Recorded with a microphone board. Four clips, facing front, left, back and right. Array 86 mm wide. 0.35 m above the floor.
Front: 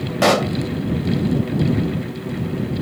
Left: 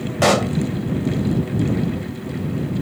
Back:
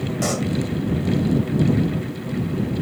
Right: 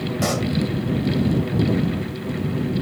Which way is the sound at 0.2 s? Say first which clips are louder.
Left 8 dB, front 9 dB; 40° left.